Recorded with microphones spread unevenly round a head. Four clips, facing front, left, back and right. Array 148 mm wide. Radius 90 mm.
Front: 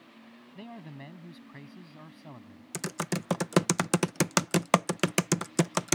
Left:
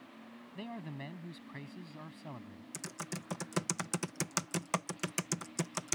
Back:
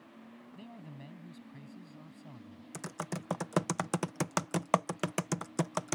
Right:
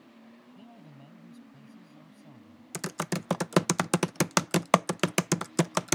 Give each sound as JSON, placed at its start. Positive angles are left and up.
{"t": 0.6, "sound": "a man speaking", "azimuth_deg": 50}
{"t": 2.7, "sound": "typing on a keyboard", "azimuth_deg": -30}